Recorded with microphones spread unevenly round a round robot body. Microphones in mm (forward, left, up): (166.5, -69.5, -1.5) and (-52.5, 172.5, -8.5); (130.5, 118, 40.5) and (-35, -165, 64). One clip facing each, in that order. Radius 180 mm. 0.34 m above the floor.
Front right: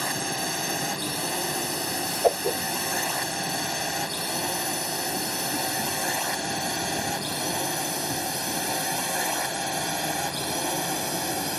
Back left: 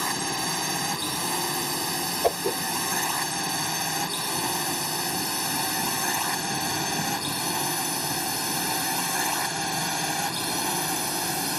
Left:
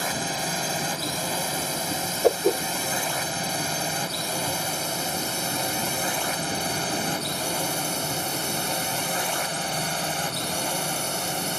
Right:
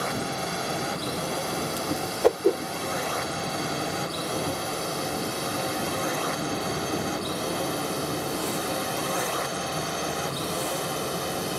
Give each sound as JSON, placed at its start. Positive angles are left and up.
{"t": 0.0, "sound": "a drone", "azimuth_deg": 60}
{"t": 2.2, "sound": "a whoosh", "azimuth_deg": 160}